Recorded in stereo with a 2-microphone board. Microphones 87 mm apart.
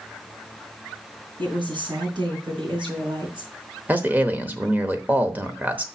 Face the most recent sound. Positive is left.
turn(degrees=-20)  # may be behind; listen again after turning